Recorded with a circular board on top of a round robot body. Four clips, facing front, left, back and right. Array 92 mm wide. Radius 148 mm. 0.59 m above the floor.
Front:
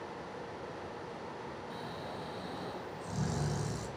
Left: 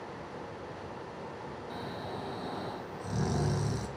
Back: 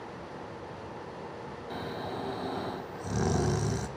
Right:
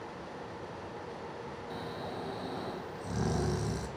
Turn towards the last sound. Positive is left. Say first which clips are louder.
# even, back 10 dB
turn(degrees=180)